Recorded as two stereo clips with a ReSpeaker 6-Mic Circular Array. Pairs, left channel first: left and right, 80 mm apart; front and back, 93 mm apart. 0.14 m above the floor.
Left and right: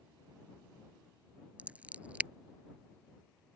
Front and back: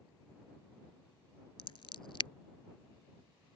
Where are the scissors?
15° right.